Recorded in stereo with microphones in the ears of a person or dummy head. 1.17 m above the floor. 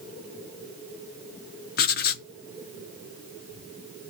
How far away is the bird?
No bird in this recording.